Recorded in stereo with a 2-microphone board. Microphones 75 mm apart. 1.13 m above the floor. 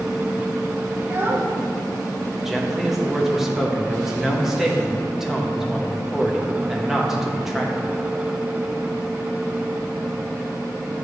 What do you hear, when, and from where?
1.0 s a child speaking: 30° right (ahead or behind), 0.9 m
2.5 s a man speaking: 5° right (ahead or behind), 0.8 m